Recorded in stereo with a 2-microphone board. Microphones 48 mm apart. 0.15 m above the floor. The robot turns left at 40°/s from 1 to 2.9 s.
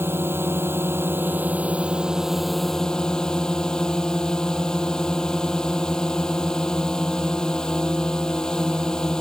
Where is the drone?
120° right; by 9.2 s 165° left.